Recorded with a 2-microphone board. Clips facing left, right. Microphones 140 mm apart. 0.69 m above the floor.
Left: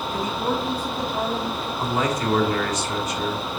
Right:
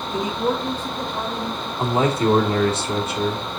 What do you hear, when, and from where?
0.1 s a man speaking: 25° right (ahead or behind), 1.3 m; by 1.7 s 35° left (ahead or behind), 2 m
1.8 s a man speaking: 30° right (ahead or behind), 2 m